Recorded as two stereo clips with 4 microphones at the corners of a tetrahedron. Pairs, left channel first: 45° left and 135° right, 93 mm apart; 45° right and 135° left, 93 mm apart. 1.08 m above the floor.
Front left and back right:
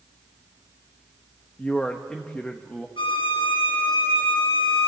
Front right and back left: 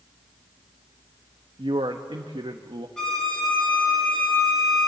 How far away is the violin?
About 7 m.